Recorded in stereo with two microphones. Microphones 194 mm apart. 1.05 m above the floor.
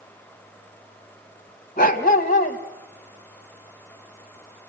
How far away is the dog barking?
About 2.5 m.